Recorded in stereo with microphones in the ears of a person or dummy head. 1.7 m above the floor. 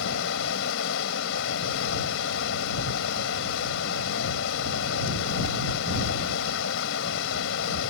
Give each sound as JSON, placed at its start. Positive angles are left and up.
{"t": 0.0, "sound": "running water", "side_deg": 75}